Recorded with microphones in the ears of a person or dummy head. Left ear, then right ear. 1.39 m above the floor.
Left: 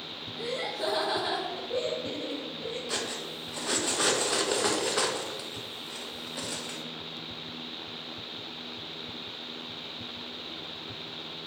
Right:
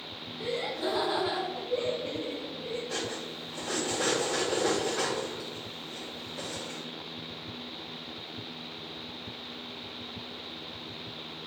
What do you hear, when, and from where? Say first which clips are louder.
0.3 s laughter: even; 70° left (ahead or behind), 1.4 m
2.9 s cutlery clinking: left 1 dB; 55° left (ahead or behind), 0.9 m